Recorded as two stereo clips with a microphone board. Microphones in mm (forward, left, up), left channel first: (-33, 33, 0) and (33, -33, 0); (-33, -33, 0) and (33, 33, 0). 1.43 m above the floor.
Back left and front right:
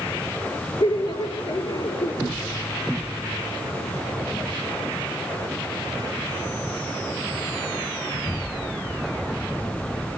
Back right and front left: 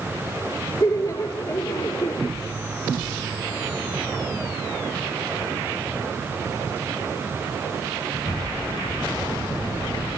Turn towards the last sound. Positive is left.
turn(degrees=170)